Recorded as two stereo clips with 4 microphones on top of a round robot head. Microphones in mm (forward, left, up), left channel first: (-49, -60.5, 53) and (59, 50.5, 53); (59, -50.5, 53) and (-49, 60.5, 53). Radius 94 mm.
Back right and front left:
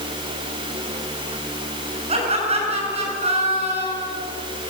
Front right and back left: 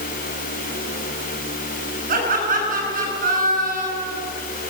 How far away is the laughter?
About 7.5 m.